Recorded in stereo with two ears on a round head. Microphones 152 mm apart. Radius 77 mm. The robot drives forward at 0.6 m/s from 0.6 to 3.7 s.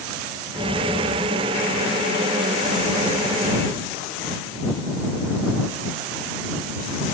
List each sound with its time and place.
0.5 s an explosion: 5° left (ahead or behind), 3.5 m